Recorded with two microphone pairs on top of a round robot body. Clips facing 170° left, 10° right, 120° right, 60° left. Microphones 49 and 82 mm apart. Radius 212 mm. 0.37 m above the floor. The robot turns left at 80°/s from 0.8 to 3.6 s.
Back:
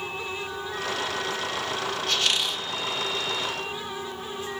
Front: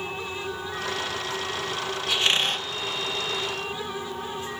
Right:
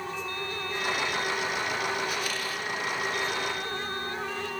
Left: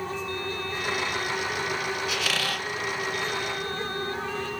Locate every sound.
2.1 s a squeak: 70° left, 1.2 m; by 2.7 s 20° left, 1.2 m